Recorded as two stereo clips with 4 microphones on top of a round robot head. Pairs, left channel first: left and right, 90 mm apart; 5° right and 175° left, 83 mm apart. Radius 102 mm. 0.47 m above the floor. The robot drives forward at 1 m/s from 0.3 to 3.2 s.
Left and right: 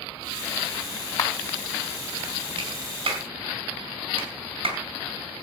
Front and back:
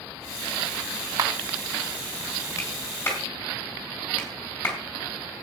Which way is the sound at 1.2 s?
135° left.